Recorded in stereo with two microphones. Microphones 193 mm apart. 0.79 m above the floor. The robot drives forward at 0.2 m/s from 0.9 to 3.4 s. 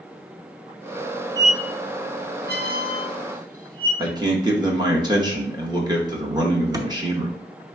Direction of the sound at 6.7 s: 20° right (ahead or behind).